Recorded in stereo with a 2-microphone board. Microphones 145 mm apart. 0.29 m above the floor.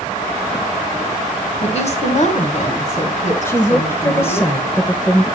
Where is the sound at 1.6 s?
45° left (ahead or behind), 2.5 m; by 4.5 s 55° left (ahead or behind), 3 m.